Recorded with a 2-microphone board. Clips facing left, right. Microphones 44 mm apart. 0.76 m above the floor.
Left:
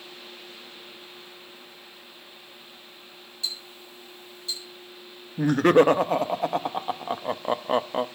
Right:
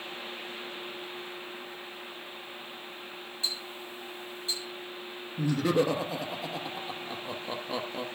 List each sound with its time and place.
3.4 s ticking: 20° right (ahead or behind), 6.5 m
5.4 s laughter: 50° left (ahead or behind), 0.7 m